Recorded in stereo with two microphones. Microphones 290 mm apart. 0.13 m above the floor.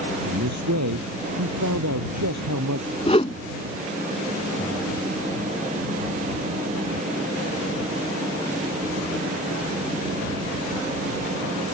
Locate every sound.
0.2 s a man speaking: 70° right (ahead or behind)
3.1 s a whoosh: 20° left (ahead or behind)